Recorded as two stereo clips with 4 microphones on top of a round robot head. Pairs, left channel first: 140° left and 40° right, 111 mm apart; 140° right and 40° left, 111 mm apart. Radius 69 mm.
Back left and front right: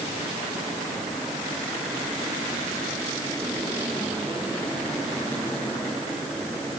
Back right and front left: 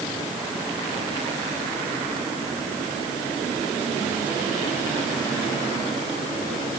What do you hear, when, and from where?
Only background noise.